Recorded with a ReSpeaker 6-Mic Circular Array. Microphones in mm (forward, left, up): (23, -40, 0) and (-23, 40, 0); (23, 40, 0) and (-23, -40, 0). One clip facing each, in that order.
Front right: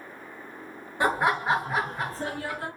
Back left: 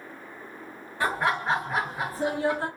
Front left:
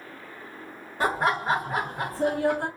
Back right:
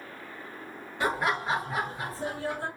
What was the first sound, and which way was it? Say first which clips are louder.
Laughter: front right 2 dB, front left 3 dB; 10° left.